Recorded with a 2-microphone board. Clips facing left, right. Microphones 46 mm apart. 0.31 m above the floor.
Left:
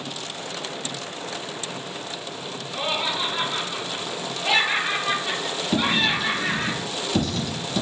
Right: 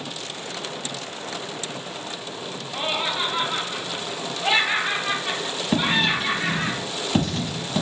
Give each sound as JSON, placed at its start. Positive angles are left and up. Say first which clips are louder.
{"t": 2.7, "sound": "laughter", "louder": "even", "side_deg": -40, "distance_m": 1.8}
{"t": 5.7, "sound": "writing", "louder": "right 1 dB", "side_deg": -40, "distance_m": 1.3}